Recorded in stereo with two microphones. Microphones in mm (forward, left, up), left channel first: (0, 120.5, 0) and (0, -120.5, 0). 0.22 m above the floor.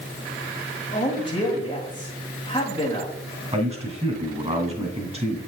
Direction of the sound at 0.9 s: 20° left (ahead or behind).